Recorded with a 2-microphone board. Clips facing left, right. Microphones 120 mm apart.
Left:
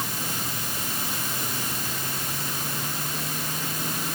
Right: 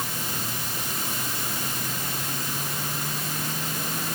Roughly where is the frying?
I don't hear frying.